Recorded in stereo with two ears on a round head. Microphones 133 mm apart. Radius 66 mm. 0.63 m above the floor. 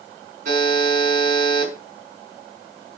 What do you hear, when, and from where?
0.5 s a buzzer: 55° right (ahead or behind), 5 m